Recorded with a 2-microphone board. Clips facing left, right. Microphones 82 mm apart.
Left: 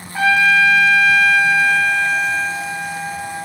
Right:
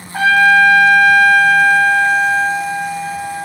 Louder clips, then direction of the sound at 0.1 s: Right 4 dB; 60° right (ahead or behind).